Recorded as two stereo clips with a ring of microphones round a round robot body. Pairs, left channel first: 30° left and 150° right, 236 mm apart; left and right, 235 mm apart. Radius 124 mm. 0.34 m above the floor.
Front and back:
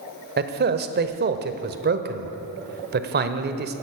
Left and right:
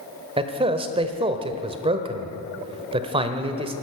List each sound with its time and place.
0.4 s a man speaking: 145° right, 1.2 m